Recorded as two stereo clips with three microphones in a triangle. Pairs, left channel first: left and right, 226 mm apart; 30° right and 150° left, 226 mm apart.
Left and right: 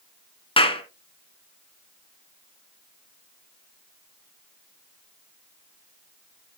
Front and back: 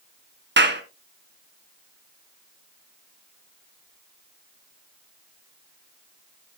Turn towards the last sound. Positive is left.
turn(degrees=150)